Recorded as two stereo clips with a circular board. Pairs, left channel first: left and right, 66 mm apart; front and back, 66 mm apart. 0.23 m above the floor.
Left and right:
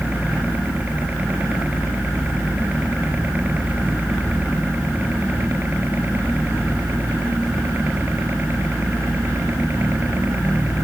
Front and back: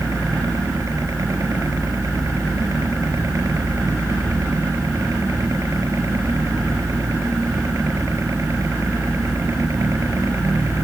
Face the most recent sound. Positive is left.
turn(degrees=-140)